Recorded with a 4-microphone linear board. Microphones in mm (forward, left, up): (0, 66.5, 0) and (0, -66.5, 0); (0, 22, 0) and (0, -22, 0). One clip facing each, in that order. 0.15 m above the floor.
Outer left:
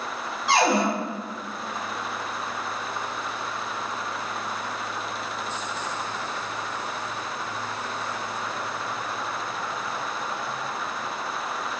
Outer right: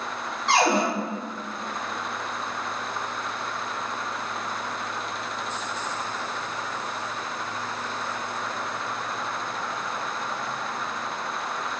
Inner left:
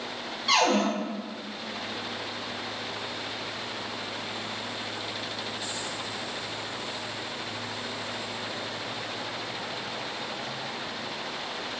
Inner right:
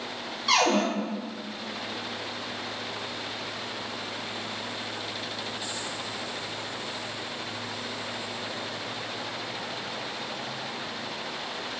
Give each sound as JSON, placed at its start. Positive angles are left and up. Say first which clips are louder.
{"t": 0.5, "sound": "a cupboard door", "louder": "even, even", "side_deg": 5, "distance_m": 1.0}